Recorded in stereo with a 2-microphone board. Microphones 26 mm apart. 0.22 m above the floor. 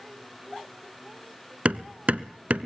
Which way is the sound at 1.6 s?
60° right (ahead or behind).